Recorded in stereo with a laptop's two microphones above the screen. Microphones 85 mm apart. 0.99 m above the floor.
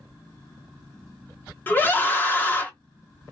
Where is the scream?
20° left (ahead or behind), 0.9 m.